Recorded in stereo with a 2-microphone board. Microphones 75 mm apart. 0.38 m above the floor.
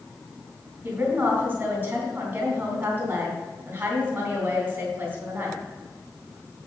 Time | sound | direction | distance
0.8 | a woman speaking | 25° right (ahead or behind) | 3 m